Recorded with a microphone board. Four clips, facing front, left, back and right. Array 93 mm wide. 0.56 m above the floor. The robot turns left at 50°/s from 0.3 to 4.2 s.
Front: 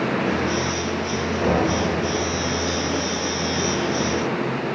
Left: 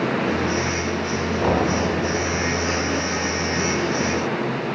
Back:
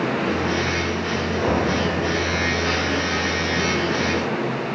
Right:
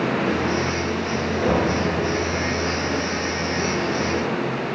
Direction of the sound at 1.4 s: 115° left.